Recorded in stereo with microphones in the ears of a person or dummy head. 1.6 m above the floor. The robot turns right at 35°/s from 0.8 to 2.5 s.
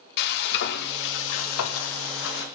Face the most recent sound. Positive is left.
turn(degrees=125)